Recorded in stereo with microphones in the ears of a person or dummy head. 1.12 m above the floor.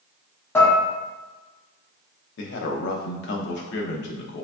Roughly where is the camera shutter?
No camera shutter in this recording.